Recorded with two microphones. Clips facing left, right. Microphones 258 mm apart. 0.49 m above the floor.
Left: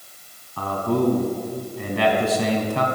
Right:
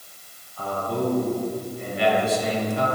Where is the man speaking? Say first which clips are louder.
Left 5 dB; 75° left (ahead or behind), 3.5 m.